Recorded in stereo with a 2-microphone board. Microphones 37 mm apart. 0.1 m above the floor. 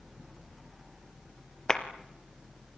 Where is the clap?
20° left (ahead or behind), 1.8 m.